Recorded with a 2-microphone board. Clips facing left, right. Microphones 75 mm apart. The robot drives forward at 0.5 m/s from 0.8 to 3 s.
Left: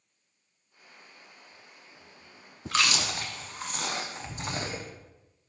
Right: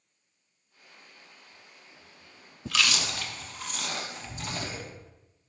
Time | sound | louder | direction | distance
2.7 | chewing | left 1 dB | 35° left (ahead or behind) | 0.6 m